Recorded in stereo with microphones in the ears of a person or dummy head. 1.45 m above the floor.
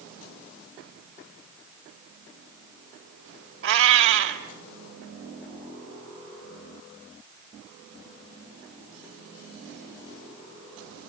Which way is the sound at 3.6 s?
60° right (ahead or behind).